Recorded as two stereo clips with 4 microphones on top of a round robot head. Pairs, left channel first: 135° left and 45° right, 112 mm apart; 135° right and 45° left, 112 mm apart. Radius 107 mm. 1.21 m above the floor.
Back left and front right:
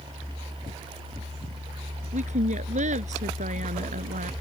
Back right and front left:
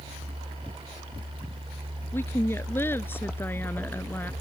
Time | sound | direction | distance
2.1 | a woman speaking | 60° right | ?